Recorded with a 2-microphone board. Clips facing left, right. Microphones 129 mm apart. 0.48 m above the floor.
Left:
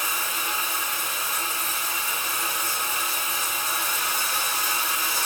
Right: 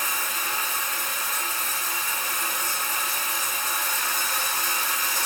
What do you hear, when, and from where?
0.0 s running water: 10° left (ahead or behind), 3 m